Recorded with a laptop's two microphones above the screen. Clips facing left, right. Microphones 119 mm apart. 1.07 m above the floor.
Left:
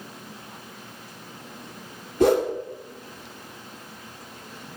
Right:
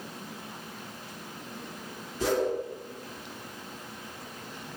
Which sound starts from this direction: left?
A whoosh, at 2.2 s.